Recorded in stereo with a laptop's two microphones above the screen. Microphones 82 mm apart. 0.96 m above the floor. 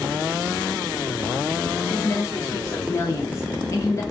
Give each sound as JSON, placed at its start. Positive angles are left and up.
{"t": 1.9, "sound": "a woman speaking", "side_deg": 35, "distance_m": 0.5}